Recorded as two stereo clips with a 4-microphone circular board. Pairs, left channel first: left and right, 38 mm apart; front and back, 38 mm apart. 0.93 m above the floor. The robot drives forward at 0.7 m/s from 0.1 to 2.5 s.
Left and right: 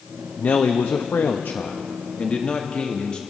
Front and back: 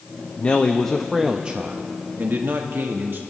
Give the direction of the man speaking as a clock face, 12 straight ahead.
10 o'clock.